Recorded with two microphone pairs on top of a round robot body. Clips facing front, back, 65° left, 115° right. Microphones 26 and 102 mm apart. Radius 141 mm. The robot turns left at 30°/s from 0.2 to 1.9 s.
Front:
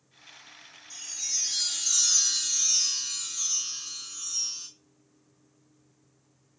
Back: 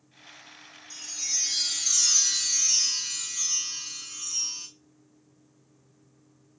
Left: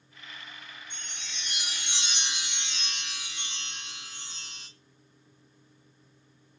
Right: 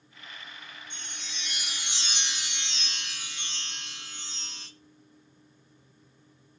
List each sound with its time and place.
0.9 s a chime: 105° right, 0.6 m; by 4.7 s 135° right, 0.6 m